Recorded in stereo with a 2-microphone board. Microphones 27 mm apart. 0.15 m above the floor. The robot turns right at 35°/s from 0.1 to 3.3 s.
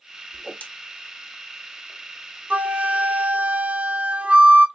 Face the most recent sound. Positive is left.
turn(degrees=-65)  # may be behind; listen again after turning